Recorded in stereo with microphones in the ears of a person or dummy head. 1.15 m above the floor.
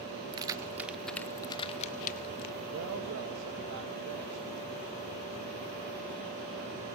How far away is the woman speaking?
About 1.4 m.